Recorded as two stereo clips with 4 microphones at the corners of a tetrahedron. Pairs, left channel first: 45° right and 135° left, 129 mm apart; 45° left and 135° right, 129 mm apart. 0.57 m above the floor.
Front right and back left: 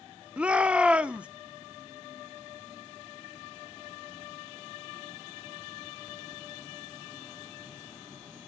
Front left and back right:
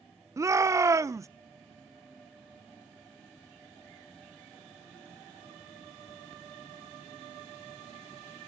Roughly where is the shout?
Behind.